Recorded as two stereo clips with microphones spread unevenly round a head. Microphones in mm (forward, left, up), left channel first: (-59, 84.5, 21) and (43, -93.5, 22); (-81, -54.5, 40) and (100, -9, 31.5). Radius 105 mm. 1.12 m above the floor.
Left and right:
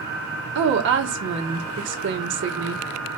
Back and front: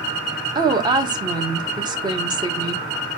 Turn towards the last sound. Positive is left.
turn(degrees=-50)